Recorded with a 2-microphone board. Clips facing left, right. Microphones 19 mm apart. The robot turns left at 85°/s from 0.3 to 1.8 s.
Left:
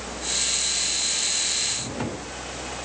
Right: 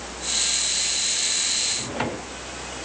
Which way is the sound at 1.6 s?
45° right (ahead or behind).